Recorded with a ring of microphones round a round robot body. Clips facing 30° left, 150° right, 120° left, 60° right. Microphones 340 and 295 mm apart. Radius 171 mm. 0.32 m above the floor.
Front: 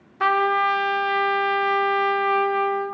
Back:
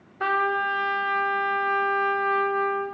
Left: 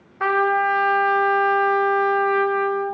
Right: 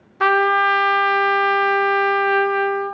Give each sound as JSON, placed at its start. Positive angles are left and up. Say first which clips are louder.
{"t": 0.2, "sound": "a trumpet", "louder": "front 4 dB, right 2 dB", "azimuth_deg": -30, "distance_m": 0.5}